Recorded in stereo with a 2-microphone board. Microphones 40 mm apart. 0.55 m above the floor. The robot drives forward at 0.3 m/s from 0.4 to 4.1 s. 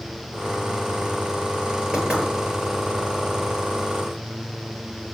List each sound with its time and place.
1.9 s knocking: 20° right (ahead or behind), 9 m